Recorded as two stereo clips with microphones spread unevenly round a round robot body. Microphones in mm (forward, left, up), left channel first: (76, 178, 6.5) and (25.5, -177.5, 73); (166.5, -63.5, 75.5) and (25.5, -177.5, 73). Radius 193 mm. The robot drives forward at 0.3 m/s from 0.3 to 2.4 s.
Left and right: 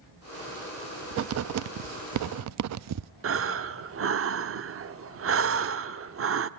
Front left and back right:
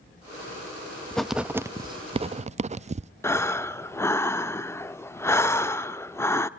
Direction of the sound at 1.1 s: 45° right.